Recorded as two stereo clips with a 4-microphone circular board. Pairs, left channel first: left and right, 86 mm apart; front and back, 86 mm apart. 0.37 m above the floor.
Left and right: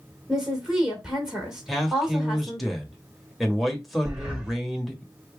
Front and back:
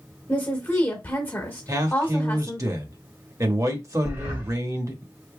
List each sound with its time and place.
0.3 s a woman speaking: 15° right, 1.5 m
1.7 s a man speaking: straight behind, 1.0 m
4.0 s breathing: 155° right, 1.7 m